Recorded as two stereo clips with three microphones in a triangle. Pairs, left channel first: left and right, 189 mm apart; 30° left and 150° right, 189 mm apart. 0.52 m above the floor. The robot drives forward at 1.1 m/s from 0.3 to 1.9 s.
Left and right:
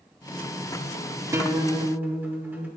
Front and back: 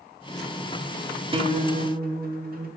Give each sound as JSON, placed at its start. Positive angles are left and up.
{"t": 1.3, "sound": "a guitar", "azimuth_deg": -145, "distance_m": 0.6}